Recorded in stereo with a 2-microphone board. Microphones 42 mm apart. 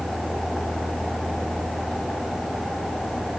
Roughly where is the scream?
No scream in this recording.